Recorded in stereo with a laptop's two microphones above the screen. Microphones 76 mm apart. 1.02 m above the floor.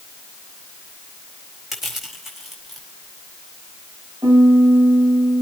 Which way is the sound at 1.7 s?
Centre (ahead or behind).